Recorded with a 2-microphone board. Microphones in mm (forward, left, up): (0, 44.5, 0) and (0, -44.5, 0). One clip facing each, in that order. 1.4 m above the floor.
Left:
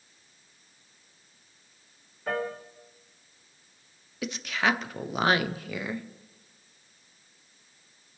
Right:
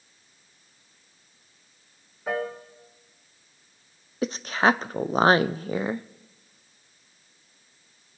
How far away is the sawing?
I don't hear sawing.